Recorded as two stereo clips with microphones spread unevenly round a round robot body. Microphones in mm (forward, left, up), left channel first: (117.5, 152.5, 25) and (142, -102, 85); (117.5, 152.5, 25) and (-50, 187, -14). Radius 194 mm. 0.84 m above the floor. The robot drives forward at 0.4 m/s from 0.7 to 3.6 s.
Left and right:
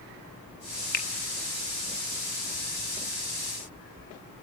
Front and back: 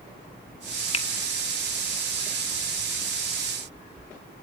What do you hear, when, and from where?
0.9 s a finger snap: 50° left, 1.3 m